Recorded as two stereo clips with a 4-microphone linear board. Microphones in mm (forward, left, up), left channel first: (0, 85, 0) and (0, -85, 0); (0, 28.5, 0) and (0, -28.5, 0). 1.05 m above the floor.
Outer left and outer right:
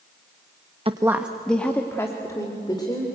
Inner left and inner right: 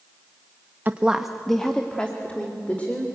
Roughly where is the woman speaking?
Right.